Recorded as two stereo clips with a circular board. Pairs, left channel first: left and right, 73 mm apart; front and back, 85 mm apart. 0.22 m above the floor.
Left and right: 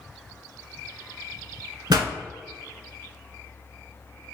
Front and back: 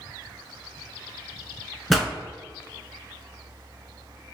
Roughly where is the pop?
Right.